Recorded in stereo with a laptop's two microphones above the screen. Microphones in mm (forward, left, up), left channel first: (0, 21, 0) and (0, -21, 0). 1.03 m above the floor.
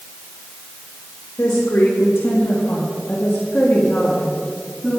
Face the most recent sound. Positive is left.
turn(degrees=5)  # may be behind; listen again after turning